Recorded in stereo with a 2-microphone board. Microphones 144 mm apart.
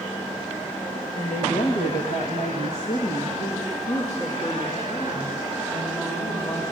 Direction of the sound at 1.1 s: 55° left (ahead or behind).